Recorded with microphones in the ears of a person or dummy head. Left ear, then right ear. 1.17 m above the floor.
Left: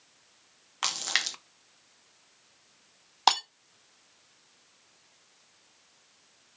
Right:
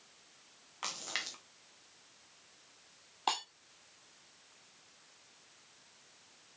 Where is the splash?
40° left (ahead or behind), 0.6 m.